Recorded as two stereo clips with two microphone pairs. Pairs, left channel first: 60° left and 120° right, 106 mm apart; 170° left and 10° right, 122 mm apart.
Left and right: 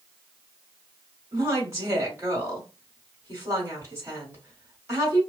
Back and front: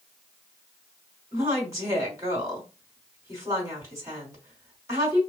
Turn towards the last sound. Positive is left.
turn(degrees=-65)